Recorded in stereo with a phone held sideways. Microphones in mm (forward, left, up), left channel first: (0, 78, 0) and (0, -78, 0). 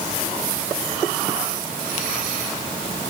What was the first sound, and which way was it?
Only background noise.